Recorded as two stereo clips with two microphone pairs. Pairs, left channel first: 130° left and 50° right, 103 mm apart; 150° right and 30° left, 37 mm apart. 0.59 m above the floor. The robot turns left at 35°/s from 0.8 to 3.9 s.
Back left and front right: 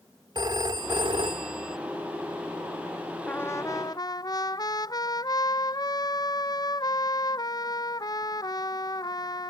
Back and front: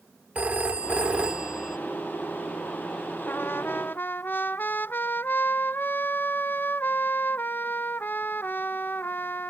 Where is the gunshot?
No gunshot in this recording.